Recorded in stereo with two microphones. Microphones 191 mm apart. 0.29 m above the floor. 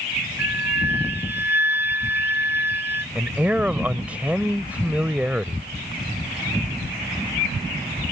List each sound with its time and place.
0.4 s a flute: 10° right (ahead or behind)
3.1 s a man speaking: 5° right (ahead or behind)